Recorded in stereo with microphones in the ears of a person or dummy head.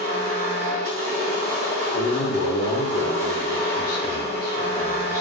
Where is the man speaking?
50° left (ahead or behind), 0.7 m.